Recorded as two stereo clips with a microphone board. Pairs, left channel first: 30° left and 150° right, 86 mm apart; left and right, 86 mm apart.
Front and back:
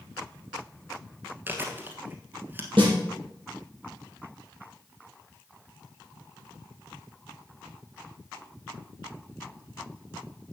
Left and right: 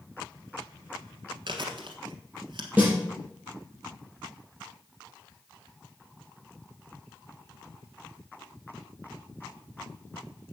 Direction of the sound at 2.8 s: 160° right.